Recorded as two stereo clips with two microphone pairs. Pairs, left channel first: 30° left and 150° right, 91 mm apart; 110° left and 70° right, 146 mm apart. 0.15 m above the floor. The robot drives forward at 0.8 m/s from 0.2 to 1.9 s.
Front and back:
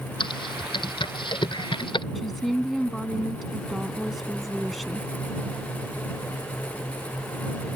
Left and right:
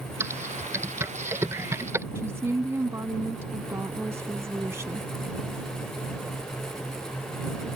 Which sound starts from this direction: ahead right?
A woman speaking, at 2.1 s.